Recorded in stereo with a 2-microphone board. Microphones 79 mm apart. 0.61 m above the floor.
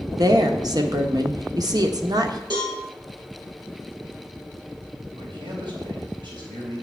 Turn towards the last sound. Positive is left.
turn(degrees=-75)  # may be behind; listen again after turning